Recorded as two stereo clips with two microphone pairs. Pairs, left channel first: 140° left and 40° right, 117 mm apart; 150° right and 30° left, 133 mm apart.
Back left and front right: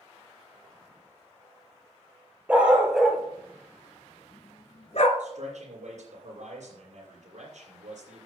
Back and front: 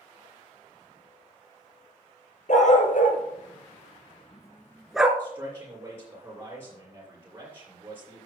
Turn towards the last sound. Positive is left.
turn(degrees=-40)